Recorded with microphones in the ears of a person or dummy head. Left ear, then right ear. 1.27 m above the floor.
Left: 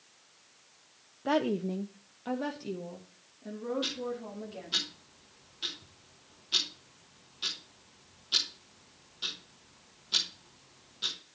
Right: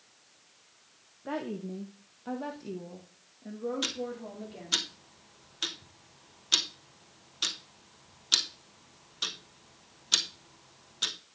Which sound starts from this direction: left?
A woman speaking, at 1.2 s.